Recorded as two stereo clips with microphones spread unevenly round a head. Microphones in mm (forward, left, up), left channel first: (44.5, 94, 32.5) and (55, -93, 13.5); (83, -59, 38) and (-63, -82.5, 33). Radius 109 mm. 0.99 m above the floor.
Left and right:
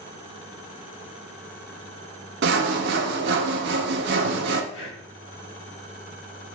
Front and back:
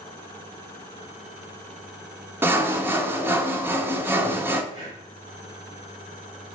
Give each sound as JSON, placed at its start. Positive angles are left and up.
{"t": 2.4, "sound": "sawing", "azimuth_deg": -100, "distance_m": 0.7}
{"t": 4.7, "sound": "breathing", "azimuth_deg": 125, "distance_m": 1.7}